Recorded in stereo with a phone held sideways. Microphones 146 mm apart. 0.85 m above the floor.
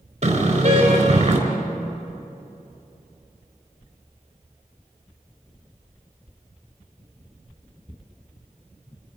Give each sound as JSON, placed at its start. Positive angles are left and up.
{"t": 0.2, "sound": "a car horn", "side_deg": -45, "distance_m": 4.0}